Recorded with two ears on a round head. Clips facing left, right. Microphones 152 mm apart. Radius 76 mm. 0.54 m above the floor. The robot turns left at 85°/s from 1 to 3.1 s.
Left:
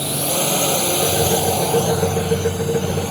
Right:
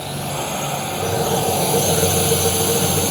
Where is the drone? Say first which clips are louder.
Left 4 dB; 50° left (ahead or behind); by 3.1 s 50° right (ahead or behind).